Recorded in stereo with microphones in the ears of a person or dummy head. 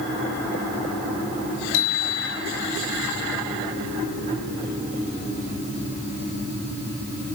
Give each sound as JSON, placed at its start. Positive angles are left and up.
{"t": 1.7, "sound": "a bicycle bell", "side_deg": 85, "distance_m": 7.0}